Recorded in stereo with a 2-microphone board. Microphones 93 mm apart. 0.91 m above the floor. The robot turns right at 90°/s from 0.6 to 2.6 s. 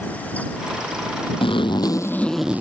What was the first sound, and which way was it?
A zipper, 90° left.